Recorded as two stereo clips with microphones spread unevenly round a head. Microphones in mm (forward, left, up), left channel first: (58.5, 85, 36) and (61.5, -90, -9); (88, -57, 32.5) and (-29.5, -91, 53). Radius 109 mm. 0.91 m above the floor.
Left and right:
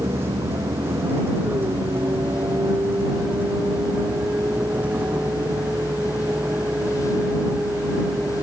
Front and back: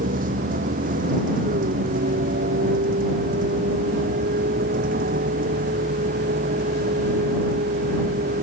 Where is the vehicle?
170° right; by 8.4 s 175° right.